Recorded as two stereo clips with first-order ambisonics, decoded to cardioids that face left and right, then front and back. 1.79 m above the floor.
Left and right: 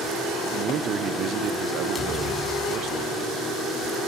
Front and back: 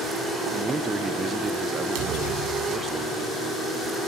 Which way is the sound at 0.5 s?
110° right.